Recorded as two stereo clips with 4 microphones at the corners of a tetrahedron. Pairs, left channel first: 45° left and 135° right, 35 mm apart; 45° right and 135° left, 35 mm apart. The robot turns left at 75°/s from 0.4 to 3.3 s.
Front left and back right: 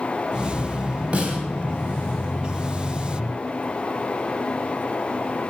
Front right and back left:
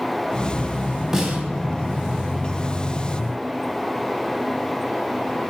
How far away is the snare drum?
About 1.1 m.